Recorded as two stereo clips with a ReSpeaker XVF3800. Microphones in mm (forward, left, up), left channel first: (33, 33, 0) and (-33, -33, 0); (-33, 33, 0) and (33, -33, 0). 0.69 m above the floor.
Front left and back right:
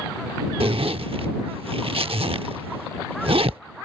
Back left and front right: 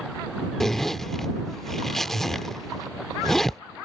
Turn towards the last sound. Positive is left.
turn(degrees=-140)